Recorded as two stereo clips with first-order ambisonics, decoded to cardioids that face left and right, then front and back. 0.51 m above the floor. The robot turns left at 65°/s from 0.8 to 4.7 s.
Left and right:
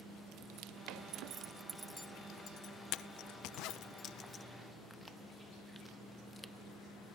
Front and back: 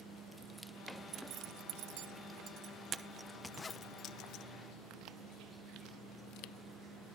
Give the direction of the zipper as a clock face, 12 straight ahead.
4 o'clock.